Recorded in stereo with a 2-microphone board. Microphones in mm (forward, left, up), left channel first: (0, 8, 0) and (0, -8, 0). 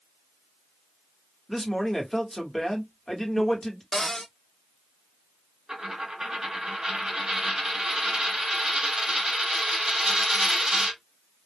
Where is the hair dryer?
No hair dryer in this recording.